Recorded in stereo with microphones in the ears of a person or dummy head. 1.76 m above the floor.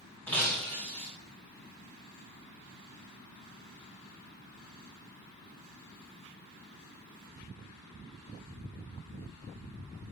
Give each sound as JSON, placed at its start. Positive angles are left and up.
{"t": 0.3, "sound": "breaking glass", "side_deg": 10, "distance_m": 1.6}